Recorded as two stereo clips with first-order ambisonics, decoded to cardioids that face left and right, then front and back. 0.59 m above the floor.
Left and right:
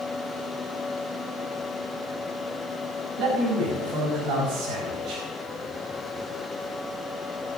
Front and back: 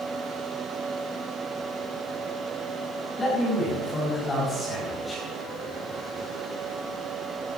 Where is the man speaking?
75° right, 4.5 m.